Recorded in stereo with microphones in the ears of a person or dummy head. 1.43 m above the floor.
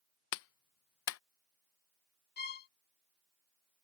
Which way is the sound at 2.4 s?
60° left (ahead or behind).